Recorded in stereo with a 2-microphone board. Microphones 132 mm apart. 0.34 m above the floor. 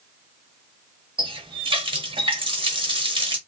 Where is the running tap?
40° right (ahead or behind), 0.8 m.